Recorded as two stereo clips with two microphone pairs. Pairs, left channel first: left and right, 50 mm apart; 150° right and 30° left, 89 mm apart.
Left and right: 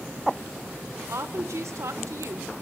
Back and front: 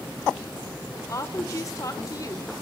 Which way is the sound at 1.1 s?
100° right.